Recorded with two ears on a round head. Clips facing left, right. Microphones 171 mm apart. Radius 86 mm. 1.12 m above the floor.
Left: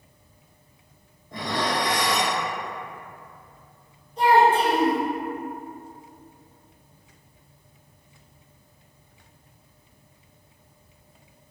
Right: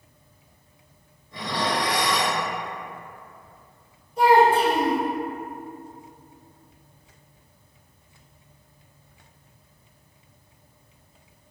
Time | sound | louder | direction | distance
1.3 | dishes clattering | even | 40° left (ahead or behind) | 0.6 m
4.2 | a child speaking | right 1 dB | 10° right (ahead or behind) | 1.6 m